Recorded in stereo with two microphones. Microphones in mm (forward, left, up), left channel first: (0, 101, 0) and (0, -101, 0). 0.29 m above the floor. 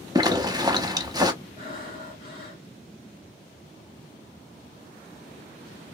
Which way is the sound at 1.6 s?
25° right (ahead or behind).